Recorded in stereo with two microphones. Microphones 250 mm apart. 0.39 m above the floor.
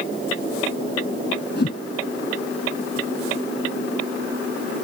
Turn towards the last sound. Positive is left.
turn(degrees=45)  # may be behind; listen again after turning